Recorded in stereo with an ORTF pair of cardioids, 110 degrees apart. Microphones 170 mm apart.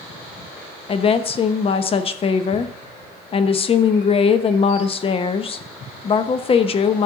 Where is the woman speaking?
35° left, 0.9 m.